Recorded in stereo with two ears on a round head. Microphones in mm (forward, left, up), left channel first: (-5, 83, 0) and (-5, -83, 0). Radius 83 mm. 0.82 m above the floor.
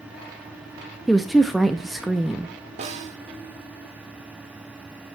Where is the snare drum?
40° right (ahead or behind), 1.3 m.